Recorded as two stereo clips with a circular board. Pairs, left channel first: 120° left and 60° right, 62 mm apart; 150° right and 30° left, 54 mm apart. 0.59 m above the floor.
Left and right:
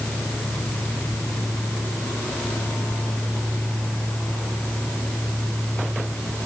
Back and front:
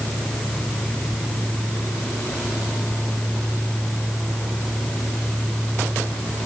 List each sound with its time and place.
Only background noise.